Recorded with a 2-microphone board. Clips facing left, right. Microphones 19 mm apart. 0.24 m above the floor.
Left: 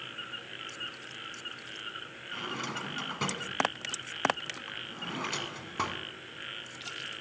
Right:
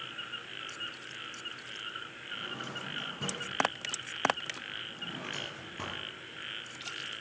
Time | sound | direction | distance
2.3 | a drawer | 55° left (ahead or behind) | 1.2 m